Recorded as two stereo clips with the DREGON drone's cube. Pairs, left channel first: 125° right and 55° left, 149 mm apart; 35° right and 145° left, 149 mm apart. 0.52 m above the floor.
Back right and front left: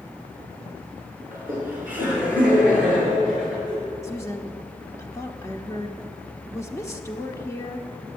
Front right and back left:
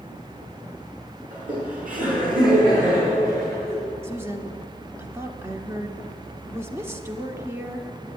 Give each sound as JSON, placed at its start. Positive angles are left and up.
{"t": 1.3, "sound": "laughter", "azimuth_deg": 130, "distance_m": 6.0}
{"t": 4.0, "sound": "a woman speaking", "azimuth_deg": -165, "distance_m": 1.0}